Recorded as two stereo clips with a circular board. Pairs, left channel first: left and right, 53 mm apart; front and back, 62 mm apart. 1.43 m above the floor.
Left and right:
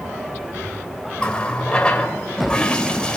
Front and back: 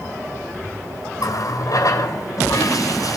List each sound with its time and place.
1.2 s a running tap: 20° left, 4 m